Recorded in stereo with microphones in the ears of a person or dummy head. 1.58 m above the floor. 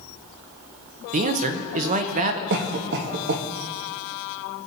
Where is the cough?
60° right (ahead or behind), 1.1 m.